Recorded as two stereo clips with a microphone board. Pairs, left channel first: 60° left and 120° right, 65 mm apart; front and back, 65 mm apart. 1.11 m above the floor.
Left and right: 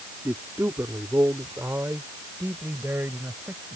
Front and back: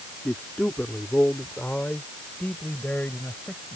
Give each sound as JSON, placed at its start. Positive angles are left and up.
{"t": 0.2, "sound": "a man speaking", "azimuth_deg": -75}